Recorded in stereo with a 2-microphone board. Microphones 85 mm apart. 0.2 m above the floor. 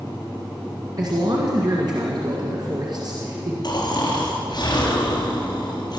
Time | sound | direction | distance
1.0 | a man speaking | 55° right (ahead or behind) | 2 m
3.6 | snoring | 55° left (ahead or behind) | 3 m